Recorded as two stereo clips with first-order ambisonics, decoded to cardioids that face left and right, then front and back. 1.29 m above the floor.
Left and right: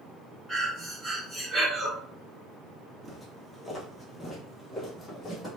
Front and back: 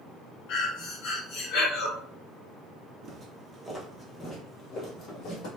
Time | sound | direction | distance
0.5 | breathing | 5° right | 2 m
3.0 | footsteps | 175° right | 1.3 m